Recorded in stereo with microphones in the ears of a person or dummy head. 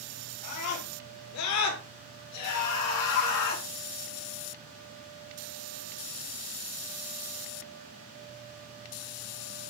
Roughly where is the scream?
Left.